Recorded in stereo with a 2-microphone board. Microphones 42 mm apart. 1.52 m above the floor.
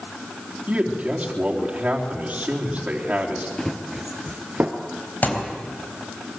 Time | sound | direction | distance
0.7 | a man speaking | 30° right (ahead or behind) | 3.5 m
3.6 | running footsteps | 10° left (ahead or behind) | 1.7 m
5.2 | a thud | 45° left (ahead or behind) | 4 m